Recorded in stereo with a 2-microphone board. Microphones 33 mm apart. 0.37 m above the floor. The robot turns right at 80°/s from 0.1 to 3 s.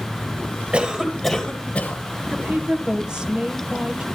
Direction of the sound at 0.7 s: 20° right.